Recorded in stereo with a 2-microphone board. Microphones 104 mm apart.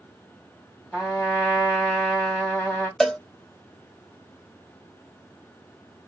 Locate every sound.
0.9 s a trumpet: 10° left (ahead or behind), 1.7 m
3.0 s a cowbell: 5° left (ahead or behind), 0.6 m